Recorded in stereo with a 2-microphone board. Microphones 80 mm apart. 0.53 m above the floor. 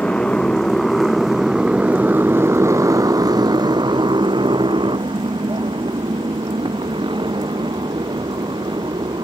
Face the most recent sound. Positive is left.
turn(degrees=-70)  # may be behind; listen again after turning